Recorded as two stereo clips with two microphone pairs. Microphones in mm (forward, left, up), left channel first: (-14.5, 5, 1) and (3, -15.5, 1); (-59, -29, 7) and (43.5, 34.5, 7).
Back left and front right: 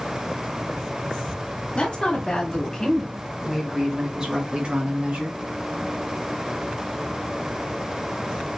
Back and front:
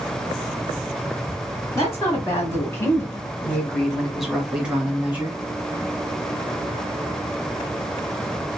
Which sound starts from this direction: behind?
A woman speaking, at 1.8 s.